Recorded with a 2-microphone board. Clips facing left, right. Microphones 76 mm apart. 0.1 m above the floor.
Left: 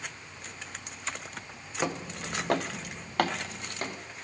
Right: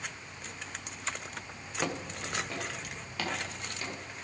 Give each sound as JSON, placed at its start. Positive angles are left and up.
{"t": 1.8, "sound": "footsteps", "side_deg": 15, "distance_m": 0.7}